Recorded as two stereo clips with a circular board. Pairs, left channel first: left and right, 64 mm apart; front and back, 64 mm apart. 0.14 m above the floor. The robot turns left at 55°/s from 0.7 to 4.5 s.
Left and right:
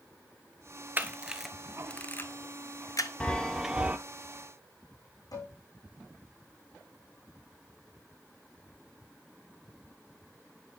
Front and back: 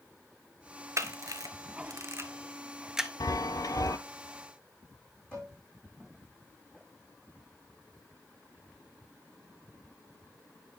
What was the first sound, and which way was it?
A camera shutter, 145° right.